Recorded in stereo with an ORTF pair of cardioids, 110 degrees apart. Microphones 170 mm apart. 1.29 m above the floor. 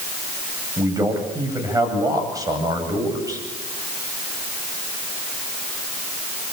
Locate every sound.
0.8 s a man speaking: 20° right, 9 m